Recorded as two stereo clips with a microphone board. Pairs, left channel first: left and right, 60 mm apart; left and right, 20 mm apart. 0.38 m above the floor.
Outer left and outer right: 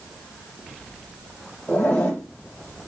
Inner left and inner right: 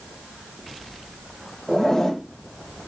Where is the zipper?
25° left (ahead or behind), 1.1 m.